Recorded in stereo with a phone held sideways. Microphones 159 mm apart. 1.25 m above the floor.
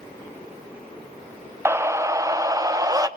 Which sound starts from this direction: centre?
A scream, at 1.6 s.